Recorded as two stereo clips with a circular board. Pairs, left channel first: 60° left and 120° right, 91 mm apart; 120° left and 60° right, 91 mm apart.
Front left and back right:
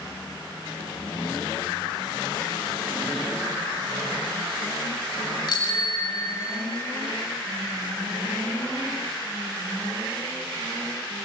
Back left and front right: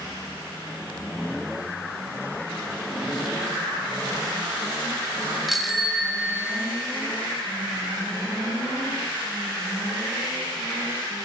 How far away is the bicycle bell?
About 2 m.